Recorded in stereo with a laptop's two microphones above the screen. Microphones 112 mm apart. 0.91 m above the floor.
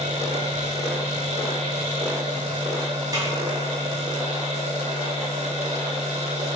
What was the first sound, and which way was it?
A machine running, 80° right.